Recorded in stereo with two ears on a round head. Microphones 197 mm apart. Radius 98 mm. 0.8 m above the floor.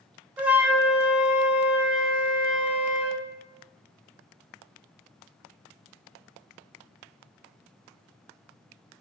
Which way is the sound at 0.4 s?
5° right (ahead or behind).